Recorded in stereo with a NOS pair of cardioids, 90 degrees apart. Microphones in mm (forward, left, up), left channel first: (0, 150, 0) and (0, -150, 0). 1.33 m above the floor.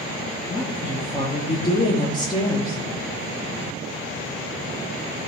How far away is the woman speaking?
About 2 m.